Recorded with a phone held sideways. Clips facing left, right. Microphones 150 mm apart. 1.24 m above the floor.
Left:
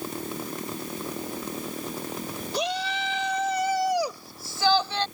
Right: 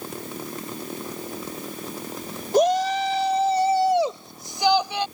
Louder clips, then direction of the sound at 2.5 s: Right 11 dB; 50° right (ahead or behind).